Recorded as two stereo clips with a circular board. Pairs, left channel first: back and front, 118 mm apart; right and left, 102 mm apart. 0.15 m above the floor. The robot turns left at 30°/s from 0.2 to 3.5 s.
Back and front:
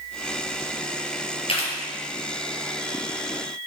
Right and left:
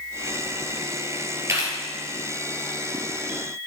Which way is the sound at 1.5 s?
150° left.